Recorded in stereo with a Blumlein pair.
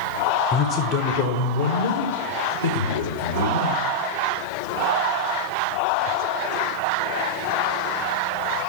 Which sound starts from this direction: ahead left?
A man speaking, at 0.5 s.